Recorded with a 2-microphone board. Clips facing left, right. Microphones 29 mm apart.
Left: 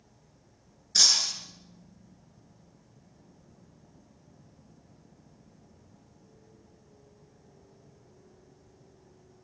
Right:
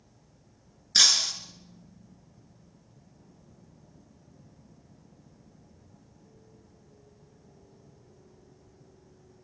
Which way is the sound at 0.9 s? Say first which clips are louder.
Right 2 dB; 35° right (ahead or behind).